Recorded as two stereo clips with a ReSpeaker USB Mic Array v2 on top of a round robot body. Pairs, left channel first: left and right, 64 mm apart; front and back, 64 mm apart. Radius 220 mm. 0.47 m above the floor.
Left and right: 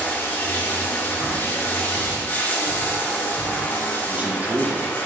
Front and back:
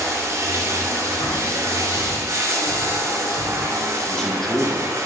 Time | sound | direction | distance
0.0 | running water | 150° left | 0.9 m
1.2 | breathing | 25° right | 0.6 m
4.1 | a man speaking | 70° right | 1.0 m